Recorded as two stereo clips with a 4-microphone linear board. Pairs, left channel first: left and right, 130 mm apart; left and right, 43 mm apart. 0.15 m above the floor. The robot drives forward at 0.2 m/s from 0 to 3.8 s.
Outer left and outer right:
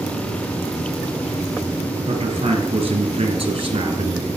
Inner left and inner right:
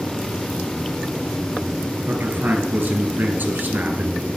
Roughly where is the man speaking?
Right.